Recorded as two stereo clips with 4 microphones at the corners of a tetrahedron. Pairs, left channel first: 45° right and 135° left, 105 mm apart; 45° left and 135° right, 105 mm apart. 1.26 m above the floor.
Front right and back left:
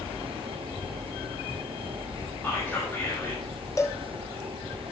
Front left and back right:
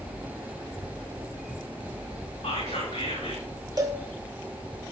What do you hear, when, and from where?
2.4 s whispering: 25° left, 2.5 m
3.8 s a cowbell: 95° right, 0.8 m